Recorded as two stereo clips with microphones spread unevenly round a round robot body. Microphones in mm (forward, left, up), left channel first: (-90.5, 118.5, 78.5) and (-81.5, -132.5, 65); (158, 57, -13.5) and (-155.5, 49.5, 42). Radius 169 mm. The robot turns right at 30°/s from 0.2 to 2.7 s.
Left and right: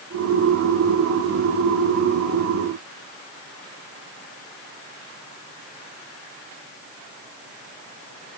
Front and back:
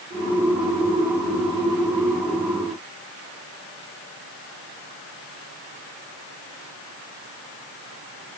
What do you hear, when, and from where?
Only background noise.